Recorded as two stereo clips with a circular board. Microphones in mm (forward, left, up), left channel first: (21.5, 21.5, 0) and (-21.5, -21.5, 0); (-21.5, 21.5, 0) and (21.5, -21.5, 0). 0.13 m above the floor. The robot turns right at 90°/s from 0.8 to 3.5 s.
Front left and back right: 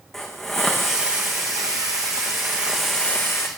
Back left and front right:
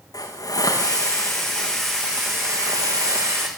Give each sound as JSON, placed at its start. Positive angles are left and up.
{"t": 0.1, "sound": "a hiss", "azimuth_deg": 130, "distance_m": 5.5}